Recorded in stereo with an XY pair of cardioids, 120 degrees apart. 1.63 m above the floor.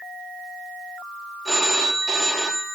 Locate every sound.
1.4 s a phone ringing: 15° right, 2 m